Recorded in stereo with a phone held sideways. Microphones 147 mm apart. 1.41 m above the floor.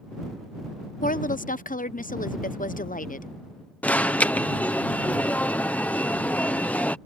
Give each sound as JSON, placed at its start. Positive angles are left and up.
{"t": 1.0, "sound": "a woman speaking", "side_deg": 65}
{"t": 3.8, "sound": "an alarm", "side_deg": 10}